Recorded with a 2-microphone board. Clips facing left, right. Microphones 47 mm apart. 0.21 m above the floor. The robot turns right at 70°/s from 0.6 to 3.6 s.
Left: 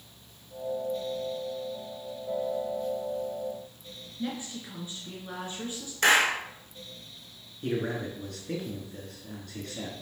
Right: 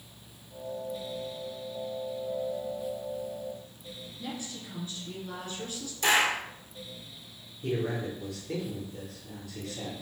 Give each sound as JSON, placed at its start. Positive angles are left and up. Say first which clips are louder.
{"t": 4.2, "sound": "a woman speaking", "louder": "left 5 dB", "side_deg": 25, "distance_m": 2.5}
{"t": 6.0, "sound": "a clap", "louder": "left 3 dB", "side_deg": 65, "distance_m": 1.9}
{"t": 7.6, "sound": "a man speaking", "louder": "even", "side_deg": 65, "distance_m": 3.0}